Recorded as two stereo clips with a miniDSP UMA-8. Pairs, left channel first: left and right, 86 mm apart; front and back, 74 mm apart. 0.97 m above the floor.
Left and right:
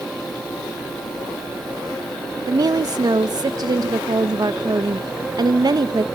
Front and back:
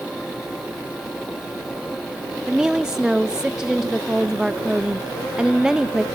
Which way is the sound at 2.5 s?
100° right.